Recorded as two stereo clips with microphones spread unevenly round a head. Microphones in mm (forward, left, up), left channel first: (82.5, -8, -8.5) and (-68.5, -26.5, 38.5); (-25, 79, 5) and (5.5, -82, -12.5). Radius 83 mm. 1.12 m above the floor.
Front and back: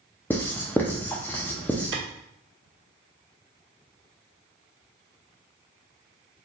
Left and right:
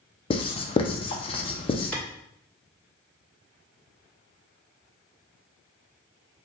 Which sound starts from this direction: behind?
A clap, at 1.9 s.